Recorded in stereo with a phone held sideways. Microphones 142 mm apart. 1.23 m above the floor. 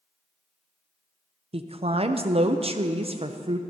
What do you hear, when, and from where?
1.5 s a woman speaking: 45° right (ahead or behind), 0.5 m